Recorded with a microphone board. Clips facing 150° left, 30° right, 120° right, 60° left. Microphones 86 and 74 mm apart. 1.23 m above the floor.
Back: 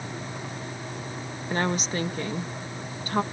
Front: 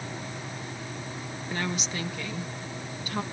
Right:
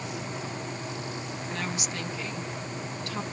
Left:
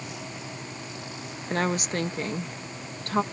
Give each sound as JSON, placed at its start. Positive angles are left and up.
{"t": 1.5, "sound": "a woman speaking", "azimuth_deg": 100}